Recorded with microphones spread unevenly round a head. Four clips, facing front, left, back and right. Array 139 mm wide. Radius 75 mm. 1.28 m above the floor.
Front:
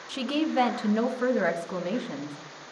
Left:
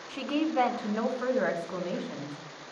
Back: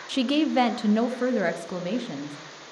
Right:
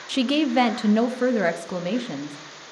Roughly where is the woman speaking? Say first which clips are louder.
Right 8 dB, back 4 dB; behind right.